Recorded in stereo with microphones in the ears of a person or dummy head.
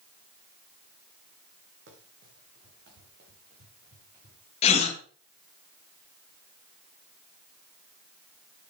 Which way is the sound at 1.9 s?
60° right (ahead or behind).